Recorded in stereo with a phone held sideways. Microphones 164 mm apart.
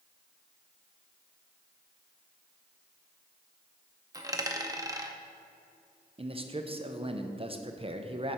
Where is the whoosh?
No whoosh in this recording.